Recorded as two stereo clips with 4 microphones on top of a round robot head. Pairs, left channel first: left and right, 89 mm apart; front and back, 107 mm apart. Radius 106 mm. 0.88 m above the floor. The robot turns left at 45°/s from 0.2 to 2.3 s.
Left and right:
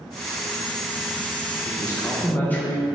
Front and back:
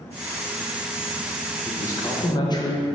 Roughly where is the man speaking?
Ahead left.